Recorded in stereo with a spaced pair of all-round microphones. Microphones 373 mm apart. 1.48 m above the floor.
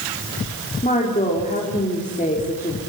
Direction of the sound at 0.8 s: 20° left (ahead or behind).